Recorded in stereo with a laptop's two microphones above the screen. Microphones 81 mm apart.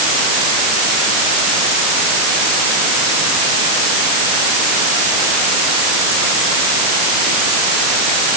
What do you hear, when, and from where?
Only background noise.